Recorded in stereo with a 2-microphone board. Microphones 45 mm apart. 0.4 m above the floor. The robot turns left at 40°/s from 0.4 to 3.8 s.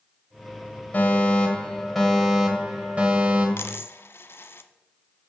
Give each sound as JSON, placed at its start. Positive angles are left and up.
{"t": 0.9, "sound": "a fire alarm", "azimuth_deg": 45, "distance_m": 3.0}
{"t": 3.6, "sound": "a dropped coin", "side_deg": 70, "distance_m": 0.8}